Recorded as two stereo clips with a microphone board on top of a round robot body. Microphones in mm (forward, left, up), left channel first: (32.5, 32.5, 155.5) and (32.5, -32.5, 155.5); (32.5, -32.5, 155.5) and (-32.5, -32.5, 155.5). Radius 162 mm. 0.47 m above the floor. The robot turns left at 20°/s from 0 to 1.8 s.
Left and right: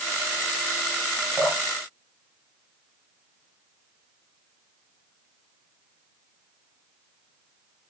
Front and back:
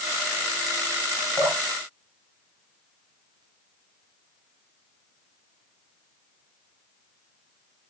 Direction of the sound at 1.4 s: 165° left.